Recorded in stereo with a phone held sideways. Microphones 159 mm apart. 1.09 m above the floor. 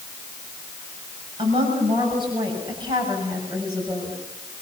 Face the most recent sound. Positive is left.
turn(degrees=-25)  # may be behind; listen again after turning